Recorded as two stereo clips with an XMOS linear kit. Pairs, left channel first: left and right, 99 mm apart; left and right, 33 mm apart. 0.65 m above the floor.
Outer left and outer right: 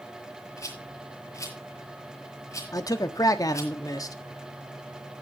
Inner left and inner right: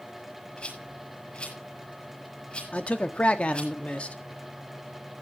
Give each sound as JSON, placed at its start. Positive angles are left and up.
{"t": 0.6, "sound": "a rattle", "side_deg": 35, "distance_m": 6.5}
{"t": 2.7, "sound": "a man speaking", "side_deg": 35, "distance_m": 1.4}